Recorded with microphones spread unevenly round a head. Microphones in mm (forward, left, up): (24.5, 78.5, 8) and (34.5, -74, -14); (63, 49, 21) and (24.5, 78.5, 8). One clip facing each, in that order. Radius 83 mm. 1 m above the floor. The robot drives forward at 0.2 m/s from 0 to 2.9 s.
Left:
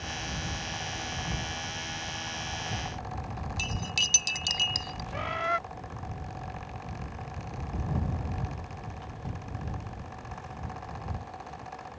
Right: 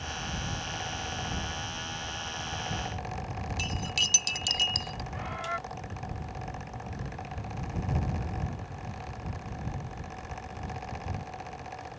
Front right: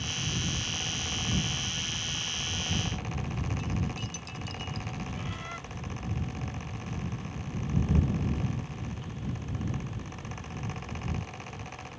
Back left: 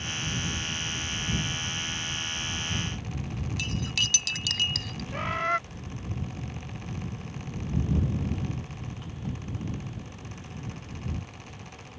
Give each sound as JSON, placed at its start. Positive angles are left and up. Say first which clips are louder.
{"t": 3.6, "sound": "cutlery clinking", "louder": "right 1 dB, back left 4 dB", "azimuth_deg": 180}
{"t": 5.1, "sound": "a bird", "louder": "left 7 dB, back left 11 dB", "azimuth_deg": 130}